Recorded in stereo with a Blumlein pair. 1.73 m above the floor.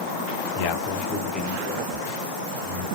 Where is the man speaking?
50° left, 0.6 m; by 2.9 s 10° right, 1.8 m.